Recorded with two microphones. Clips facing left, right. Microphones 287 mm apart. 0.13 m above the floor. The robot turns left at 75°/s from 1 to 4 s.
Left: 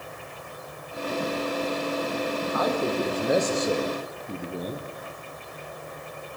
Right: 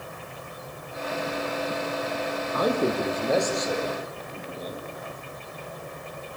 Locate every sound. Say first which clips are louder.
2.5 s a man speaking: right 3 dB; 135° right, 3.5 m; by 4.8 s 115° left, 3.5 m